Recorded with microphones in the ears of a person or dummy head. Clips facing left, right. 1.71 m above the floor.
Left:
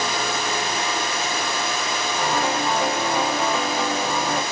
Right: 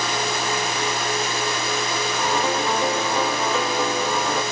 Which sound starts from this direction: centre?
A piano, at 2.2 s.